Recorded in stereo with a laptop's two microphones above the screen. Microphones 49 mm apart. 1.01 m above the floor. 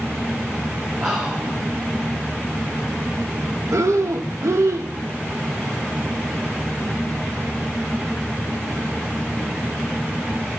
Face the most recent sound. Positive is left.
turn(degrees=-85)